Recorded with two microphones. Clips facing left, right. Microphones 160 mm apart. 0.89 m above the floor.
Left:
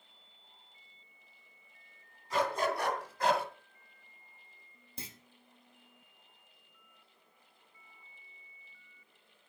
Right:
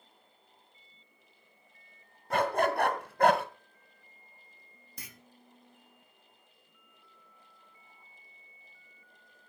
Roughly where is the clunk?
Left.